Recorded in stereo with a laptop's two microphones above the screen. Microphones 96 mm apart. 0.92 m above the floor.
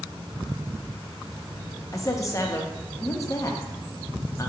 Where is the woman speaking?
30° left (ahead or behind), 0.8 m.